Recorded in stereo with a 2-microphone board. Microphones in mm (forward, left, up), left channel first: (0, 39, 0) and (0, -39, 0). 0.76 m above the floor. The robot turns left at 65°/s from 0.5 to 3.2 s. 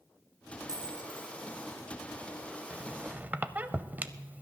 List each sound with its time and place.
0.7 s a dropped coin: 65° right, 1.2 m; by 1.3 s 105° right, 1.2 m
2.7 s a squeak: 15° right (ahead or behind), 0.5 m; by 4.4 s 20° right (ahead or behind), 0.5 m